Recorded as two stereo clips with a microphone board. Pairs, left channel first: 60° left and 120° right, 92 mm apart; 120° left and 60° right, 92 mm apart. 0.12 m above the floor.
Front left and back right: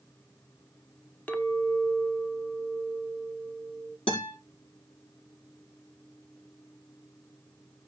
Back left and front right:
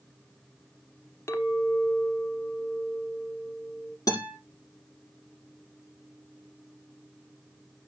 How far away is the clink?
About 0.7 m.